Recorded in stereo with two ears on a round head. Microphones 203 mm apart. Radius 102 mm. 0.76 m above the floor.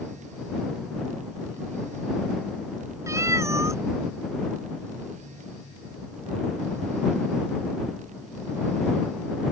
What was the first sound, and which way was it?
A cat meowing, 15° right (ahead or behind).